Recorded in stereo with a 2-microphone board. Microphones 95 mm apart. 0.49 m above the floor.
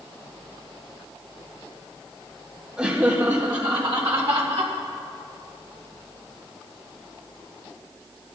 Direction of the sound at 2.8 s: 20° right (ahead or behind).